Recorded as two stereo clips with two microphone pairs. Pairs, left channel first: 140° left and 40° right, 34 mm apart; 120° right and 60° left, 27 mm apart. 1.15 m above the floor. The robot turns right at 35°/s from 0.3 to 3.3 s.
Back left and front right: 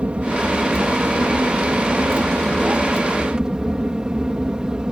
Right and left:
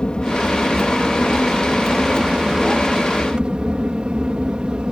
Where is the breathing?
No breathing in this recording.